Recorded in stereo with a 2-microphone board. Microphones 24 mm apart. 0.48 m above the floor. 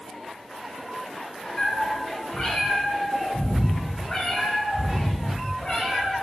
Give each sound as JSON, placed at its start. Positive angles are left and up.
{"t": 1.6, "sound": "a cat meowing", "side_deg": 30, "distance_m": 1.7}